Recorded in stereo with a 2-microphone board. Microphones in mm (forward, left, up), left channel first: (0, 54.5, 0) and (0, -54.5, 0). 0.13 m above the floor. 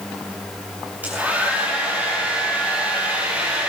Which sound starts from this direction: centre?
A hair dryer, at 1.0 s.